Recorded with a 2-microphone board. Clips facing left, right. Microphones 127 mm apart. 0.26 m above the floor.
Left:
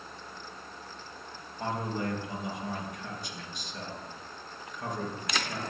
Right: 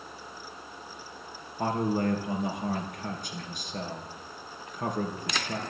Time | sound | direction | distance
1.6 | a man speaking | 50° right (ahead or behind) | 3 m